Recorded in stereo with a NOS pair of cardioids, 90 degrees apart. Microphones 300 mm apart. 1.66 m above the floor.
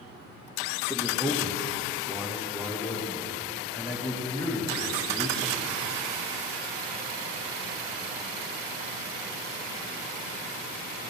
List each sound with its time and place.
0.9 s a man speaking: 5° left, 0.8 m